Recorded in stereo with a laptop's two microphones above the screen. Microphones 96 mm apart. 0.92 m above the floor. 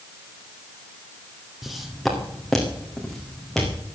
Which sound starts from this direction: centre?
Footsteps, at 1.6 s.